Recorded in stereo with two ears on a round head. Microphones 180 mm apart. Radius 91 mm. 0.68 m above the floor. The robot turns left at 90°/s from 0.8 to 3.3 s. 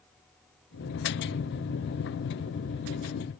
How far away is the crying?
No crying in this recording.